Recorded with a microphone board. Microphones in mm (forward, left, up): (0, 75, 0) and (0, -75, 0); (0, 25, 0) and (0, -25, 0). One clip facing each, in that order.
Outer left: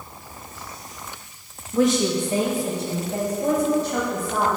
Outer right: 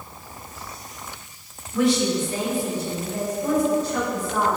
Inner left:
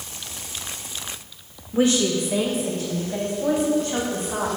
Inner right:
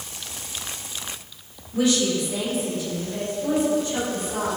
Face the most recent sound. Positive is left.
turn(degrees=80)